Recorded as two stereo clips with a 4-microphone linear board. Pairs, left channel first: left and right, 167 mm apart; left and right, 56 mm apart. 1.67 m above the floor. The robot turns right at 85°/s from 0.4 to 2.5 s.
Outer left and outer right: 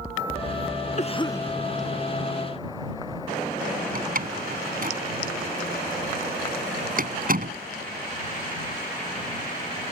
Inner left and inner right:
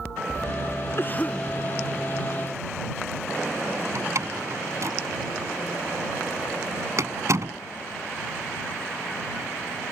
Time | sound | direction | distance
1.0 | a cough | 130° left | ?
4.0 | a door slam | 60° right (ahead or behind) | ?